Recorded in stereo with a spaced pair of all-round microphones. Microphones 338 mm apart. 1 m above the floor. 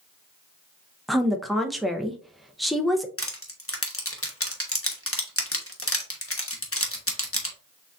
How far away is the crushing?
About 0.9 m.